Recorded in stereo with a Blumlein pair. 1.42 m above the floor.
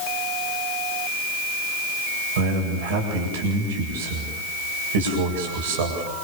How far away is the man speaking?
About 8.5 m.